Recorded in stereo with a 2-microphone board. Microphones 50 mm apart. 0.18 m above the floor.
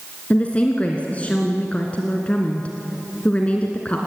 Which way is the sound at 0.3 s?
25° left (ahead or behind).